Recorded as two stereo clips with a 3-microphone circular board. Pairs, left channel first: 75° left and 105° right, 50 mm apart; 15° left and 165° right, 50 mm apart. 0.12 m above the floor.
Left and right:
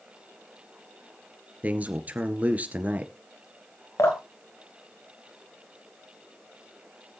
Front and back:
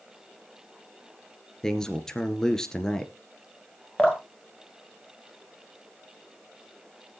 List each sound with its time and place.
1.6 s a man speaking: 60° right, 1.6 m
4.0 s dripping: 90° left, 2 m